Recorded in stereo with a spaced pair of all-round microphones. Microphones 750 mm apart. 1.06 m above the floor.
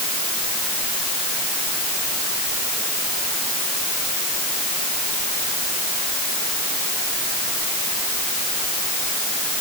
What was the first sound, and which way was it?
Only background noise.